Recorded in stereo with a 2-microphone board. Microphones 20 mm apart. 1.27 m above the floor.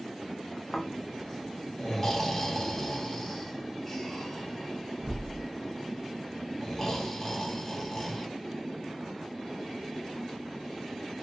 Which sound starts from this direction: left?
Snoring, at 0.7 s.